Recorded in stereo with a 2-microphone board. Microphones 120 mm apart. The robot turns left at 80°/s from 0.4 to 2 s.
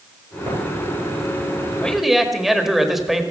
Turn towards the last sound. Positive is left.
turn(degrees=0)  # may be behind; listen again after turning